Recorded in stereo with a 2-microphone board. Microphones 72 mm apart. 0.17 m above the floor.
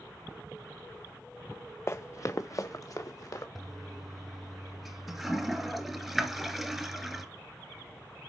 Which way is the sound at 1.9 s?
35° left (ahead or behind).